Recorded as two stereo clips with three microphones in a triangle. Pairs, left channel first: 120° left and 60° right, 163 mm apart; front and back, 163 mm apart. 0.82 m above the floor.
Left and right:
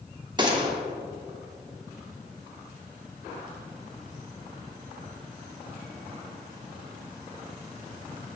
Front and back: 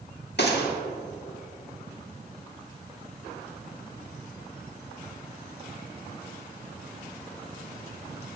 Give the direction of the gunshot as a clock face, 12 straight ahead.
12 o'clock.